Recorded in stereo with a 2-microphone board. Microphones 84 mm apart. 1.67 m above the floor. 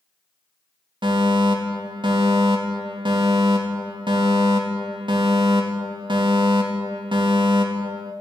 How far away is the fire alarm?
About 4 m.